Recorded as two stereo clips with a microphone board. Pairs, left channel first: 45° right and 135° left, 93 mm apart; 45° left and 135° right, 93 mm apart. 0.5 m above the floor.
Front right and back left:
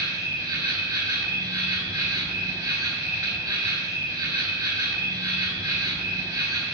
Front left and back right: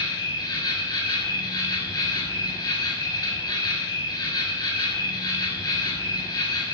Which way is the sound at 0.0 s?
85° left.